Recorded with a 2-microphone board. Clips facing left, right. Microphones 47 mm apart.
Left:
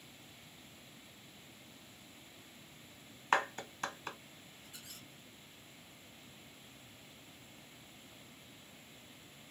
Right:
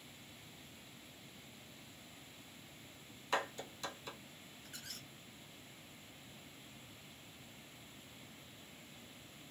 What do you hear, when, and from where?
3.3 s a clap: 50° left (ahead or behind), 1.2 m
4.7 s a squeak: 55° right (ahead or behind), 1.6 m